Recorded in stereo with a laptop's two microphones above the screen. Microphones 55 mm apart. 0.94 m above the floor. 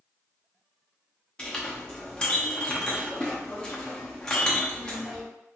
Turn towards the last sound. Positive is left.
turn(degrees=15)  # may be behind; listen again after turning